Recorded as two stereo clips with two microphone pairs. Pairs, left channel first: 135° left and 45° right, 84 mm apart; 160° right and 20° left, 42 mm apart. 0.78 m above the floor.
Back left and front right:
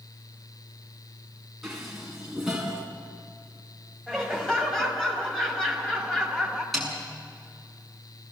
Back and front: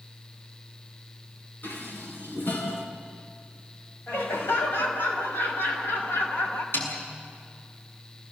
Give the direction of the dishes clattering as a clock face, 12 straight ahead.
4 o'clock.